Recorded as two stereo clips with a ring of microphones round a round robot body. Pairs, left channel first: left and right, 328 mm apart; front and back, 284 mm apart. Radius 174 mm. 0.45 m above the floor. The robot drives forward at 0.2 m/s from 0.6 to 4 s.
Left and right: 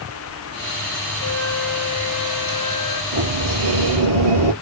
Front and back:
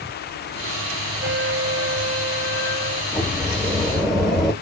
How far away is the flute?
About 1.3 m.